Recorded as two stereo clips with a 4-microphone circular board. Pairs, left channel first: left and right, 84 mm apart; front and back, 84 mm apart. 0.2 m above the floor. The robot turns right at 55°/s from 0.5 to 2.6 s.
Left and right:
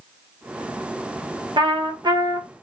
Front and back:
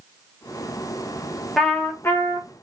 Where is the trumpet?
90° right, 0.8 m; by 2.5 s 40° right, 0.8 m.